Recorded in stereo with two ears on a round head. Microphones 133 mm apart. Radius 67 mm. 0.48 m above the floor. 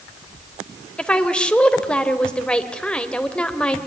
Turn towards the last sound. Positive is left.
turn(degrees=5)  # may be behind; listen again after turning